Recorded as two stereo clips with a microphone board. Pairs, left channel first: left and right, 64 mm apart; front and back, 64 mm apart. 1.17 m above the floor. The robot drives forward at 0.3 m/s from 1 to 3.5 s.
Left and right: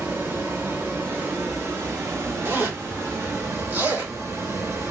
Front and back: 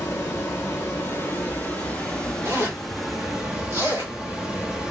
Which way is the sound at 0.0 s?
45° right.